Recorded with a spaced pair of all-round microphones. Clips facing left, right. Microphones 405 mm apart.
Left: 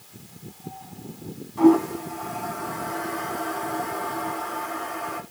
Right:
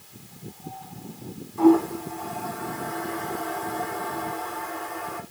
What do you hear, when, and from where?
1.6 s a toilet flushing: 80° left, 2.5 m